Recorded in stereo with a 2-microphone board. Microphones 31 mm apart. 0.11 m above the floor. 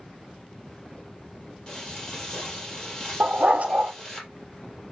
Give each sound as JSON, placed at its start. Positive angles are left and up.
{"t": 1.7, "sound": "frying", "side_deg": 25, "distance_m": 3.5}
{"t": 3.2, "sound": "a dog barking", "side_deg": -50, "distance_m": 0.9}